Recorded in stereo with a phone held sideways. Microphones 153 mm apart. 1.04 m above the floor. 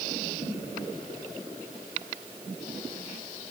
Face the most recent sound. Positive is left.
No sound to turn to.